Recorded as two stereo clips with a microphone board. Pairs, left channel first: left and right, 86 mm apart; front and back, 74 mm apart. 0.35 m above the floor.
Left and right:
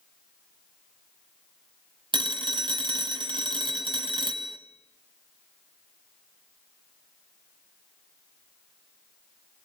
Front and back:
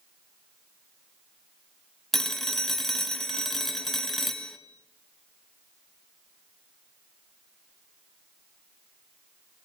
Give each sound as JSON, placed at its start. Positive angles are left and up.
{"t": 2.1, "sound": "a phone ringing", "azimuth_deg": -85, "distance_m": 1.2}